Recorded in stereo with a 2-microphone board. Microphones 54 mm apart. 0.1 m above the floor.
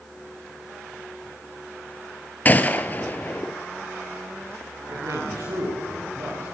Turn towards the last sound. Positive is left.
turn(degrees=-80)